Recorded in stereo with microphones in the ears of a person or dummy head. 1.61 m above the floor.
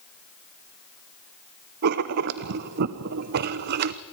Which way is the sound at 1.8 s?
55° right (ahead or behind).